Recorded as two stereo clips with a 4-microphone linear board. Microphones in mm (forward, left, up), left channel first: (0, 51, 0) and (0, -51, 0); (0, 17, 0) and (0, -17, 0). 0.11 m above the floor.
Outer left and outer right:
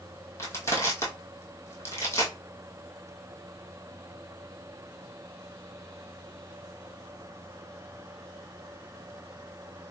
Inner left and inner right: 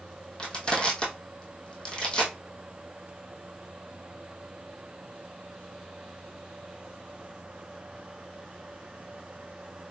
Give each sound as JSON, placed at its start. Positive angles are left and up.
{"t": 0.4, "sound": "crushing", "side_deg": 25, "distance_m": 1.6}